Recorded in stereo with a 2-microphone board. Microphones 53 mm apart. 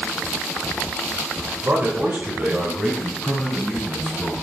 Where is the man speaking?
45° right (ahead or behind), 1.5 m; by 4.3 s centre (ahead or behind), 3 m.